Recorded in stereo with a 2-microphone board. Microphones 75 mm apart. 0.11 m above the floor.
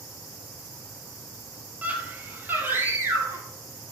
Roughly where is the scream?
Right.